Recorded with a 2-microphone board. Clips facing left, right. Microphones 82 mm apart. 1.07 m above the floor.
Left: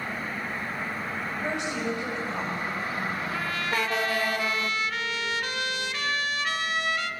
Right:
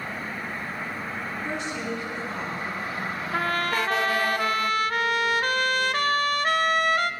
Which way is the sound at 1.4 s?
75° left (ahead or behind).